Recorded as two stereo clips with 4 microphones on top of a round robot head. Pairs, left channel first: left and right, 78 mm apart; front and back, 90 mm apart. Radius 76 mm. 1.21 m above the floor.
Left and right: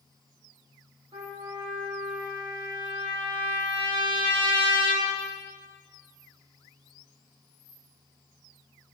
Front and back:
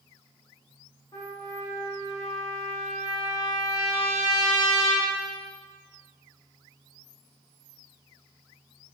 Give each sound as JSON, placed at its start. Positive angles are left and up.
{"t": 1.1, "sound": "a trumpet", "azimuth_deg": -60, "distance_m": 2.5}